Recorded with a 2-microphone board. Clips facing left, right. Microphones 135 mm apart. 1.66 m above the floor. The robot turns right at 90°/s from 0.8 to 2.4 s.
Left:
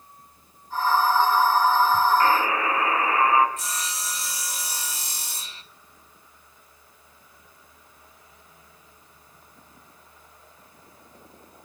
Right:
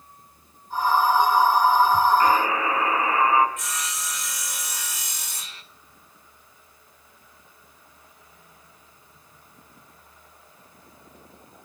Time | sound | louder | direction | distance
2.2 | a buzzer | right 1 dB | 10° right (ahead or behind) | 4 m
3.6 | sawing | even | 35° left (ahead or behind) | 1.6 m